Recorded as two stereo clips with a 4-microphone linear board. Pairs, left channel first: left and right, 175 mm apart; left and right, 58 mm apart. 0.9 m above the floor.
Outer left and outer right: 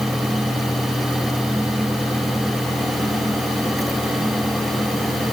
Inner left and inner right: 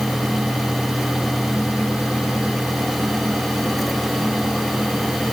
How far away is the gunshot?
No gunshot in this recording.